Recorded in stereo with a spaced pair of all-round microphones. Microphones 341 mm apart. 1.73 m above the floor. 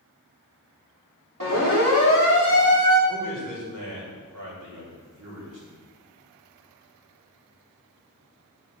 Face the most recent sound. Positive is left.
turn(degrees=-60)  # may be behind; listen again after turning